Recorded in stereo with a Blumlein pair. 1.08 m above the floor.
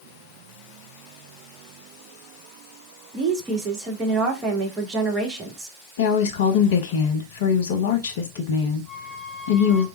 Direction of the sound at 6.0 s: 55° left.